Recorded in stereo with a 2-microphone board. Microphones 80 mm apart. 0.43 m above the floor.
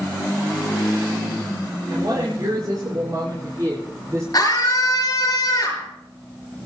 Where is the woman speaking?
65° right (ahead or behind), 5 m; by 4.2 s 40° right (ahead or behind), 5 m.